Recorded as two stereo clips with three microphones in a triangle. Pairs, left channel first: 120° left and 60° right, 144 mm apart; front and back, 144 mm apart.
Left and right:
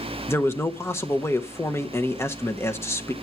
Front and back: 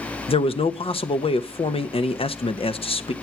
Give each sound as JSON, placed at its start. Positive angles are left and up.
{"t": 0.3, "sound": "a man speaking", "azimuth_deg": 50, "distance_m": 0.7}